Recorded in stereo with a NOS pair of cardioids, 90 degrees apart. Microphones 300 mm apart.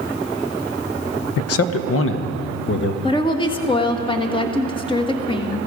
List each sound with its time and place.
1.4 s a man speaking: 55° left, 0.8 m; by 2.9 s 40° left, 1.6 m
3.0 s a woman speaking: 15° left, 1.6 m